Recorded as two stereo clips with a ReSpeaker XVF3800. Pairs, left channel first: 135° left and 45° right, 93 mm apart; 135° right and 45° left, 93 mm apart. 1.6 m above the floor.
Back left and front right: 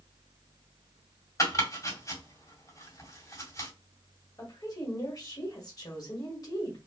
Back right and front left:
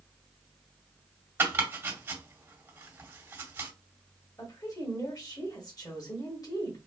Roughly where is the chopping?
Left.